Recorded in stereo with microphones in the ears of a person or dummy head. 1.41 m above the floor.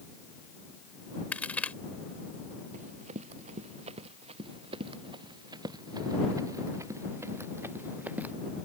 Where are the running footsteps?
40° right (ahead or behind); by 8.3 s 5° right (ahead or behind).